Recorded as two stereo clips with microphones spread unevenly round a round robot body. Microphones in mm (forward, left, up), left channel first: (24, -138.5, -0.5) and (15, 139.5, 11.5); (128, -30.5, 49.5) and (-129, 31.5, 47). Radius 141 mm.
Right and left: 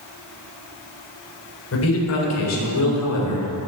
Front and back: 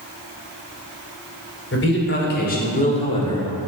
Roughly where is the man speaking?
Ahead right.